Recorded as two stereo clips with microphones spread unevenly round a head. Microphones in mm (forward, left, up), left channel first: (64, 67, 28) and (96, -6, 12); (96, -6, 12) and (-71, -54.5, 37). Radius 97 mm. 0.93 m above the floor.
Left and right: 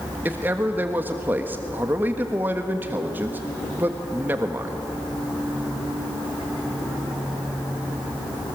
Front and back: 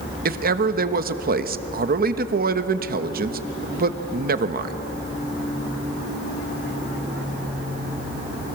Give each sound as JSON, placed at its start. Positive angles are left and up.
{"t": 0.2, "sound": "a man speaking", "azimuth_deg": -130, "distance_m": 1.3}